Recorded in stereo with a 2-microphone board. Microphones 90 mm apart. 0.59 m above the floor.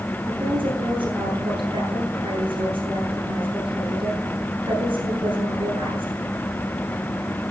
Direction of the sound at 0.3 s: 75° right (ahead or behind).